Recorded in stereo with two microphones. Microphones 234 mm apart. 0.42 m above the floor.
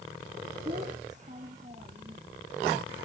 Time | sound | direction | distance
0.7 | a child speaking | 35° right (ahead or behind) | ?